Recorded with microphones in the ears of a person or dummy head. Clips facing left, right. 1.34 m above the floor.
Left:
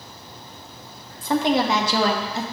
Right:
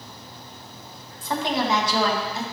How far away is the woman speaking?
About 2 m.